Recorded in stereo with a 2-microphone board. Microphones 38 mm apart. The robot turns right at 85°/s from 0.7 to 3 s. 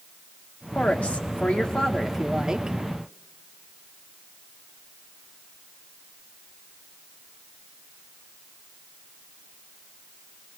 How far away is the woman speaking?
About 1.1 m.